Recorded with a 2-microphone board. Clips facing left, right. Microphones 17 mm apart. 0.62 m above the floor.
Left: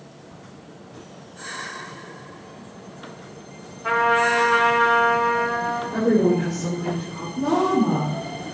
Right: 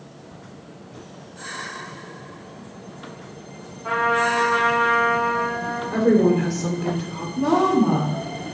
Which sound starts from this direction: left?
A trumpet, at 3.8 s.